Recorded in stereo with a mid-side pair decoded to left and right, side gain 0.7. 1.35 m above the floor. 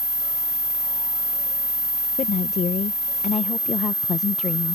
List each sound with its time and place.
2.2 s a woman speaking: 40° left